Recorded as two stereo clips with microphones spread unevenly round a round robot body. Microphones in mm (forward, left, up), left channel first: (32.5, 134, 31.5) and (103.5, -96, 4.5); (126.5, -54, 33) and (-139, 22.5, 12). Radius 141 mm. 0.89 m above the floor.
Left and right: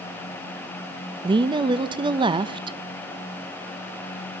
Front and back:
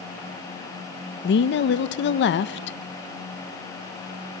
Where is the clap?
No clap in this recording.